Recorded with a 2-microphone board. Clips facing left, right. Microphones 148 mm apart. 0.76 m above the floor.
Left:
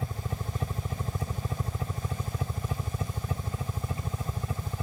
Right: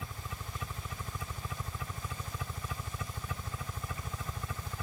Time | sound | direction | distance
0.0 | a helicopter | 40° left (ahead or behind) | ?